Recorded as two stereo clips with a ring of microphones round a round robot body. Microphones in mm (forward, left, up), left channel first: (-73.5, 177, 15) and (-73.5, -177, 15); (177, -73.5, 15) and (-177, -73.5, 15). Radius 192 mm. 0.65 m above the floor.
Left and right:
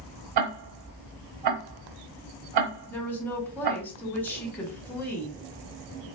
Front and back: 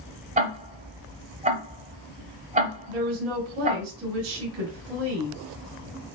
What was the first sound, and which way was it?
Ticking, 110° right.